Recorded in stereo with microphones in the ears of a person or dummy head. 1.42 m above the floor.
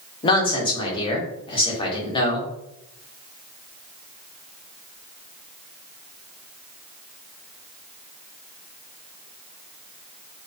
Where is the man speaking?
25° left (ahead or behind), 0.7 m.